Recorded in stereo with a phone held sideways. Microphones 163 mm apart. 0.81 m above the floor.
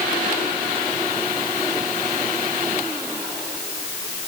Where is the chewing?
I don't hear chewing.